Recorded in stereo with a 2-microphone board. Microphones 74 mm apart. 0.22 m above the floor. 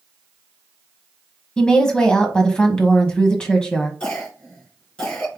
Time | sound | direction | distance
1.6 | a woman speaking | 10° left (ahead or behind) | 1.1 m
4.0 | a cough | 15° left (ahead or behind) | 2.5 m